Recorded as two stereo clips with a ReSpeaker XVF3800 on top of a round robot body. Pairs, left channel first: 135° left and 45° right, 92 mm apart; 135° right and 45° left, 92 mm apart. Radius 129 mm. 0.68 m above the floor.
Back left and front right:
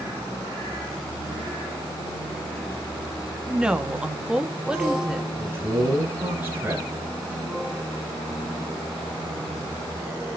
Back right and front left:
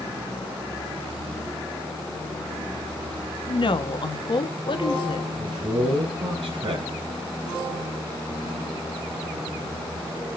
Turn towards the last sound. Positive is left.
turn(degrees=30)